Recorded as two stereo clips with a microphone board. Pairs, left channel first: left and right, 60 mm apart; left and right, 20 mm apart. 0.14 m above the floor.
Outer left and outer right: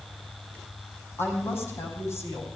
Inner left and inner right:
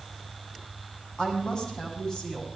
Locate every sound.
1.2 s a woman speaking: 45° left (ahead or behind), 8.5 m